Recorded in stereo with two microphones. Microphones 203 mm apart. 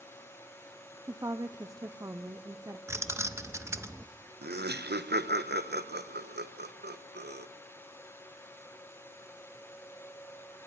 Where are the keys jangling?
15° right (ahead or behind), 0.7 m.